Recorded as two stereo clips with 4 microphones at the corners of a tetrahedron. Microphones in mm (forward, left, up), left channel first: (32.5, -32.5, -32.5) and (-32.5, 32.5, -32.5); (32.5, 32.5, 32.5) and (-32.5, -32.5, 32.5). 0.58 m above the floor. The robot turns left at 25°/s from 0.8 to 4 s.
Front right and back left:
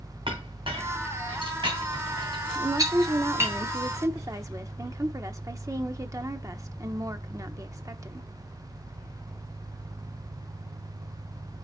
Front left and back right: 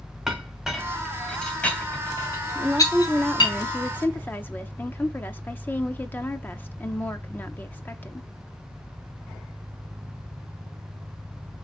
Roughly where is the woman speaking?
Behind left.